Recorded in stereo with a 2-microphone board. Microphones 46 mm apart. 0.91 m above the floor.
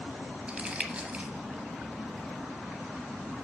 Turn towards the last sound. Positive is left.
turn(degrees=-25)  # may be behind; listen again after turning